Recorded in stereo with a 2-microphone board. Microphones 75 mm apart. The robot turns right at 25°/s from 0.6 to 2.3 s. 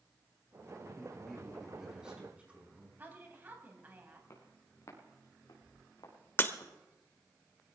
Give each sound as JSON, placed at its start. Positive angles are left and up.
{"t": 1.0, "sound": "a man speaking", "azimuth_deg": 165, "distance_m": 5.5}
{"t": 3.0, "sound": "a woman speaking", "side_deg": -30, "distance_m": 3.5}
{"t": 4.3, "sound": "footsteps", "side_deg": 45, "distance_m": 4.0}
{"t": 6.4, "sound": "breaking glass", "side_deg": 35, "distance_m": 0.9}